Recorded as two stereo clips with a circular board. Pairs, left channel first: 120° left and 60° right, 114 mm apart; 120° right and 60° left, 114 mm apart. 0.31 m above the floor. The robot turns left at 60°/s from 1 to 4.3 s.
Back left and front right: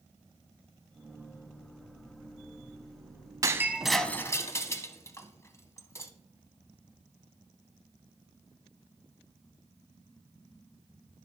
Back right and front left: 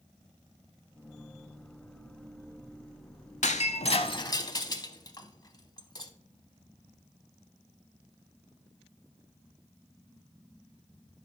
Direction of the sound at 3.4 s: 120° right.